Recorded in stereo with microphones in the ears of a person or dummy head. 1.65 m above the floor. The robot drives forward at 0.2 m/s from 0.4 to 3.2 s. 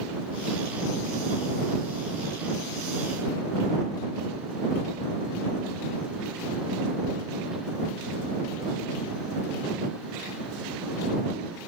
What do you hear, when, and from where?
Only background noise.